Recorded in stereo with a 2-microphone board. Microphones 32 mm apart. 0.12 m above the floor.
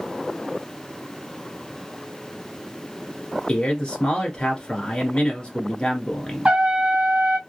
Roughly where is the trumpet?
Right.